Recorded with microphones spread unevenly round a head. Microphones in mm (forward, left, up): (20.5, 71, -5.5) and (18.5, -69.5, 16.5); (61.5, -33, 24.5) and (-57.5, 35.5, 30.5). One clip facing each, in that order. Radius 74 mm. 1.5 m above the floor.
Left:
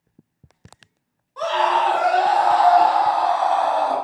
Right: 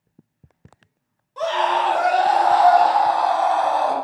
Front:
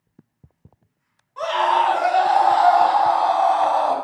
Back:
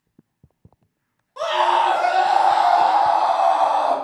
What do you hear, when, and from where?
1.4 s a scream: 160° right, 2.5 m; by 4.0 s 125° right, 2.5 m